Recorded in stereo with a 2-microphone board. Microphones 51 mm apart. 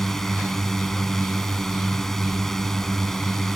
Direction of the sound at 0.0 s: 10° left (ahead or behind).